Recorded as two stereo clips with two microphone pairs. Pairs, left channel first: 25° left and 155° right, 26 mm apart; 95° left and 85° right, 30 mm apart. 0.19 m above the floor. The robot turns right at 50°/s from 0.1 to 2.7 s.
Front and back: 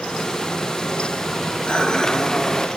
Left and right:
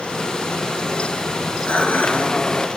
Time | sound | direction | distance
1.7 | dishes clattering | 65° left | 2.5 m